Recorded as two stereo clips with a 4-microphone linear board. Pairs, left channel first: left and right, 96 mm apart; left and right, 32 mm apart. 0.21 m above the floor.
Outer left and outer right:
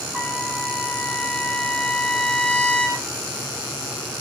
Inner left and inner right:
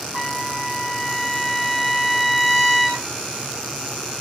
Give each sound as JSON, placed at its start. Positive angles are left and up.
{"t": 0.1, "sound": "a trumpet", "side_deg": 5, "distance_m": 6.5}